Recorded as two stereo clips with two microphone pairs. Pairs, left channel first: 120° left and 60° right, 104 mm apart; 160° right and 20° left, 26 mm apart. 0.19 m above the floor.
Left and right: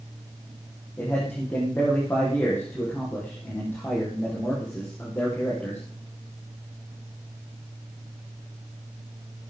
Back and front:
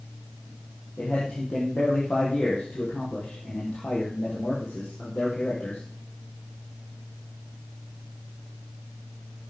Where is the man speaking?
170° right, 6 m.